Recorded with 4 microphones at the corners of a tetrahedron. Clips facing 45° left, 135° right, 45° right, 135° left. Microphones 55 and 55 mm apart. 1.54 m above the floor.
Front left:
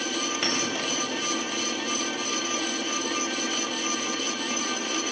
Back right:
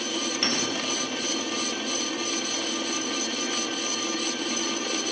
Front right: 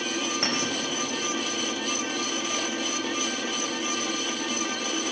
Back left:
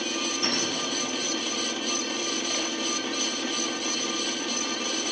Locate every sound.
0.4 s a clink: 25° right, 5 m